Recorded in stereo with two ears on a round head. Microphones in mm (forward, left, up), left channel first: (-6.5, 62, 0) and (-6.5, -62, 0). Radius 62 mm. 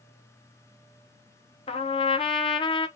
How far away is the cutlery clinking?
I don't hear cutlery clinking.